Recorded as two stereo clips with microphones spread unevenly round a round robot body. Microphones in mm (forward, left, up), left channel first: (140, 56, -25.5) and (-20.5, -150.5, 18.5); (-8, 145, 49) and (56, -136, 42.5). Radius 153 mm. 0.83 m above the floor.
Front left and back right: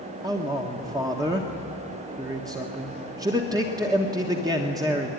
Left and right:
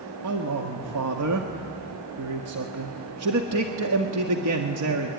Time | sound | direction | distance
0.2 | a man speaking | 50° right | 1.6 m